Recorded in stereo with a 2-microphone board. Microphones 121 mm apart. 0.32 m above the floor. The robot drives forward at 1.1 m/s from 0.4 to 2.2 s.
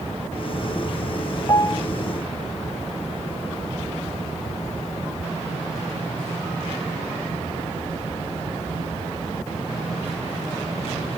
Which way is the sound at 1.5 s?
30° left (ahead or behind).